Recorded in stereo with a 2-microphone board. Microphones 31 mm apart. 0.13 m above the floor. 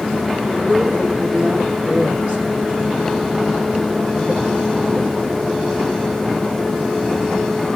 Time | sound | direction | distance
0.5 | a woman speaking | 50° right (ahead or behind) | 5 m